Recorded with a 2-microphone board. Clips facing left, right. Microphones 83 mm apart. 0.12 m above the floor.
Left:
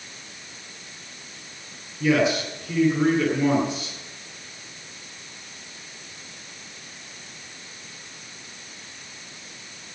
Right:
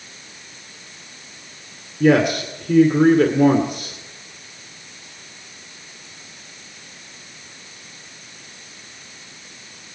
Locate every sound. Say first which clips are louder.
2.0 s a man speaking: right 5 dB; 55° right (ahead or behind), 2.5 m